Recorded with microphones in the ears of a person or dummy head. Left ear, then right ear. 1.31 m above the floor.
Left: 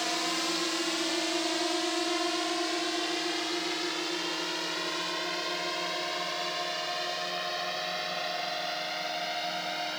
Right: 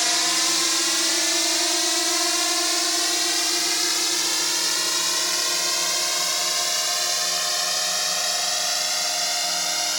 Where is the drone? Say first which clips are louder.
Right 9 dB; 65° right (ahead or behind); by 10.0 s 85° right.